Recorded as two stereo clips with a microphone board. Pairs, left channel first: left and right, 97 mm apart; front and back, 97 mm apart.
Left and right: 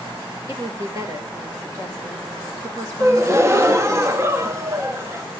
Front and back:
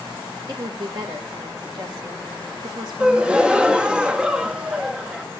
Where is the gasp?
110° right, 0.7 m.